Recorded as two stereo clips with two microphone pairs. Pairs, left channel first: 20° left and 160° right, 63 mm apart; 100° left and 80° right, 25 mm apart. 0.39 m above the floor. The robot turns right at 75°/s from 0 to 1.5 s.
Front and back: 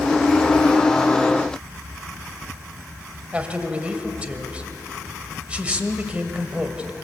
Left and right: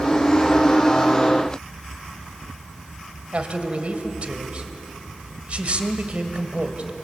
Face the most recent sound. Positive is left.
turn(degrees=-90)